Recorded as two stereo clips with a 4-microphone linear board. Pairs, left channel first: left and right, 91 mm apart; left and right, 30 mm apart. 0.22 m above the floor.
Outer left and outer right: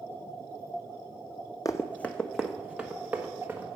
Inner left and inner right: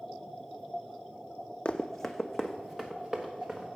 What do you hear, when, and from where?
1.6 s running footsteps: 40° left (ahead or behind), 0.5 m; by 3.8 s 20° right (ahead or behind), 1.8 m